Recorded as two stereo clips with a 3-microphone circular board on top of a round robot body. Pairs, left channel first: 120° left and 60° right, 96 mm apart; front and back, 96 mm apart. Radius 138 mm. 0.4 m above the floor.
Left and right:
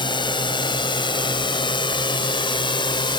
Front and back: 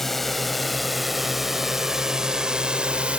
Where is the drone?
85° left; by 3.2 s 105° left.